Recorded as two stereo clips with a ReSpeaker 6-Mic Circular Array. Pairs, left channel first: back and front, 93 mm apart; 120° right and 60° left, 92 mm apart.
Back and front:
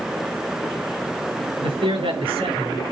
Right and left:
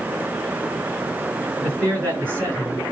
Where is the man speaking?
5° right, 7 m.